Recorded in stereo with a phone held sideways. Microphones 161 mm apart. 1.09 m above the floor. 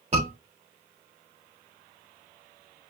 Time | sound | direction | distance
0.1 | a scream | 35° right (ahead or behind) | 4 m